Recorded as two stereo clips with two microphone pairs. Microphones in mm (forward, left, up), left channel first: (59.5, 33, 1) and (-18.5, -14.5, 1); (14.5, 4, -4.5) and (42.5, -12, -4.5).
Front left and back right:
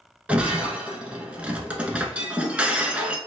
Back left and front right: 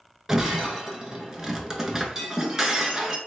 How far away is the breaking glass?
About 0.7 m.